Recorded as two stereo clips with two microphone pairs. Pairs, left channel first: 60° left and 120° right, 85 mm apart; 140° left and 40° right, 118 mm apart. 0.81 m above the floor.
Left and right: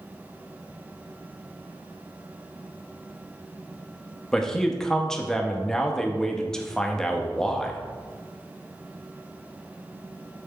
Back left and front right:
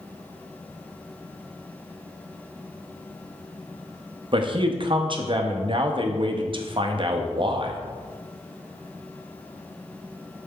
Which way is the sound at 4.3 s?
15° right.